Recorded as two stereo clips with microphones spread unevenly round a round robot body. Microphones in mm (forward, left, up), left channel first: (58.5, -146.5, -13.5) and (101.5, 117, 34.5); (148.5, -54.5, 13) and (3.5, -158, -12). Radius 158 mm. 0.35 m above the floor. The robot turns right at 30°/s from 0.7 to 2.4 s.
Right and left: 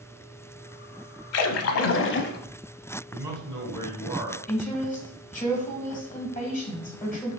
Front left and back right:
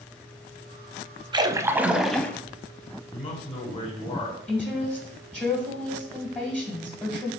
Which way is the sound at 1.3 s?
75° right.